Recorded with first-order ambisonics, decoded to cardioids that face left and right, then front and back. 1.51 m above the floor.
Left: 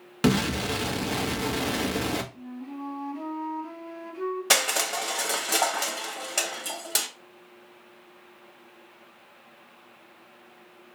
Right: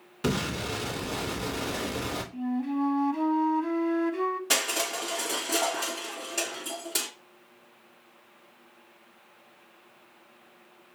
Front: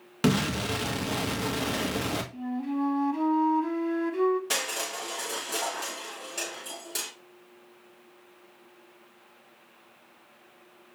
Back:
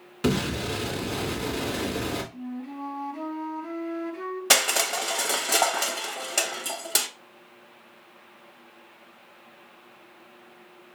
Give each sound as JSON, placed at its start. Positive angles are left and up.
{"t": 0.2, "sound": "an explosion", "azimuth_deg": 55, "distance_m": 1.2}
{"t": 2.3, "sound": "a flute", "azimuth_deg": -60, "distance_m": 0.9}
{"t": 4.5, "sound": "crushing", "azimuth_deg": 145, "distance_m": 0.9}